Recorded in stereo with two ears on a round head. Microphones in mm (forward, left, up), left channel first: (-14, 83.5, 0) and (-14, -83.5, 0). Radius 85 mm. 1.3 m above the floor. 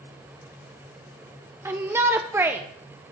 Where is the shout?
15° right (ahead or behind), 0.7 m.